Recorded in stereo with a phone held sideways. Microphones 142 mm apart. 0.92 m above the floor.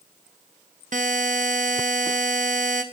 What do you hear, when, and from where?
0.9 s a buzzer: 60° right (ahead or behind), 0.8 m